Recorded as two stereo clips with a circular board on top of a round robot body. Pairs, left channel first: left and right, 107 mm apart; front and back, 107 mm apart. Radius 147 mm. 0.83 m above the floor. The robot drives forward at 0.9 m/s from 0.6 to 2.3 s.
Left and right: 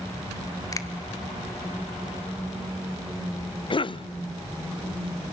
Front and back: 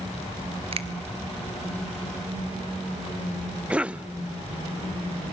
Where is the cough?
105° left, 0.7 m.